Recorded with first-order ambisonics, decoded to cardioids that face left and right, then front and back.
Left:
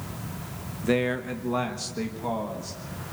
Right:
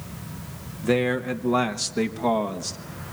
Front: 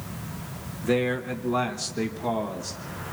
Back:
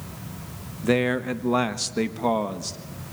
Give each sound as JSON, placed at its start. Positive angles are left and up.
{"t": 0.8, "sound": "a man speaking", "azimuth_deg": -170, "distance_m": 1.0}